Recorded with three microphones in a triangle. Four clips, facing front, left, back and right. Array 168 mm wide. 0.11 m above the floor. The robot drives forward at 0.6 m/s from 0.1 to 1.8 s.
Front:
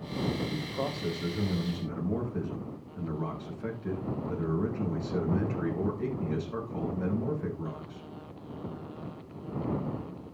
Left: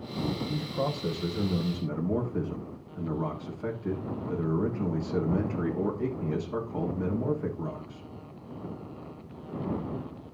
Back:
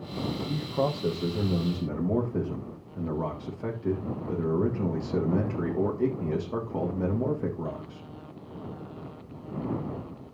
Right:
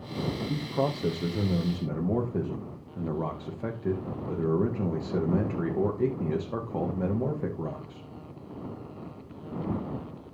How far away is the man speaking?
About 4.5 m.